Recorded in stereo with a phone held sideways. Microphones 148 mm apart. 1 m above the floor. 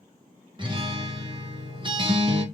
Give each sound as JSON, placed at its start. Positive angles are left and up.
{"t": 0.6, "sound": "a guitar", "side_deg": -30, "distance_m": 0.7}